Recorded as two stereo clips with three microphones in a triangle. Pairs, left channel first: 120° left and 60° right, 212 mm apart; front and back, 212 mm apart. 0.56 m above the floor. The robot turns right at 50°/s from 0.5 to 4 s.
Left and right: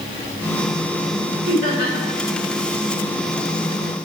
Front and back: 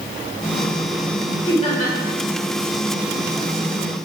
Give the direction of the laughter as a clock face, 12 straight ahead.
2 o'clock.